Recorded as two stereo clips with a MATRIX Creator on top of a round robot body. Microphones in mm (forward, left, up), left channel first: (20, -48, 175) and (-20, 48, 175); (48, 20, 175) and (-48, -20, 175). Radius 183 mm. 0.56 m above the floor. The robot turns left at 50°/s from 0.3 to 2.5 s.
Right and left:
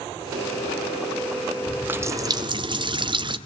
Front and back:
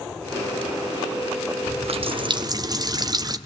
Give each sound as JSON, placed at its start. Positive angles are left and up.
{"t": 1.7, "sound": "a running tap", "azimuth_deg": -165, "distance_m": 1.8}